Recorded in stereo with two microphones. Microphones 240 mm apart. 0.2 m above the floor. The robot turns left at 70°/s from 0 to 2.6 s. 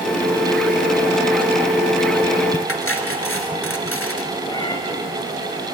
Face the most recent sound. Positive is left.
turn(degrees=15)  # may be behind; listen again after turning